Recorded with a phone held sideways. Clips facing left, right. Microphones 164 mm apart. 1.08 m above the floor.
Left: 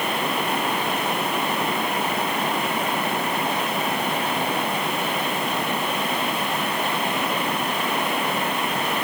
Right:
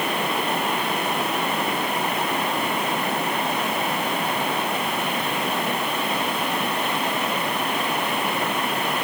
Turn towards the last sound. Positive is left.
No sound to turn to.